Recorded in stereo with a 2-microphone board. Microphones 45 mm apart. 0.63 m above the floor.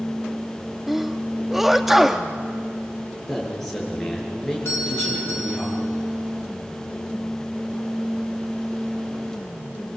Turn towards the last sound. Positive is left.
turn(degrees=70)  # may be behind; listen again after turning